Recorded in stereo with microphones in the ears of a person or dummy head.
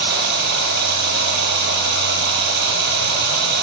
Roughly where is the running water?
Right.